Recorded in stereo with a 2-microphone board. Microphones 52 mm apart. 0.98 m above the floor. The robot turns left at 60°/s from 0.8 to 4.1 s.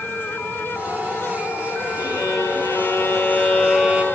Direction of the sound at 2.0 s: 110° left.